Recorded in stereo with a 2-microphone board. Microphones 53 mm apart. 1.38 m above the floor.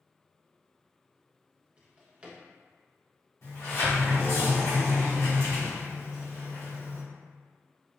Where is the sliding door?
75° left (ahead or behind), 1.4 m.